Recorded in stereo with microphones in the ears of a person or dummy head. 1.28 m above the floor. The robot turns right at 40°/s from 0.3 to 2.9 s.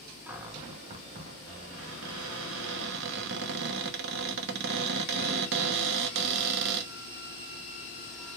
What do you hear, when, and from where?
0.3 s a cupboard door: 170° right, 0.7 m; by 6.9 s 65° right, 0.7 m